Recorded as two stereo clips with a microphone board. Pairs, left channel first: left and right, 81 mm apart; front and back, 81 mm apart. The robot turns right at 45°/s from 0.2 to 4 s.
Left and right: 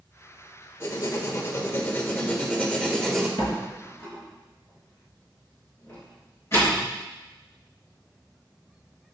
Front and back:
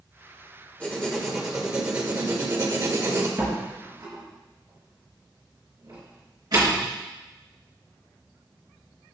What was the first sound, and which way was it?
Writing, 70° left.